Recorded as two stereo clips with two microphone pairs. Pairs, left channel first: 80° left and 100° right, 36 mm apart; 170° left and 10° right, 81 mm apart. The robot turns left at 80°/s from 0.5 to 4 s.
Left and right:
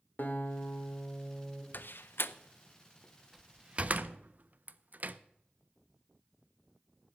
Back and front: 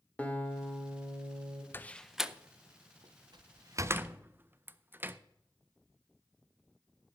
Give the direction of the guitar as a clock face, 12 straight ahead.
9 o'clock.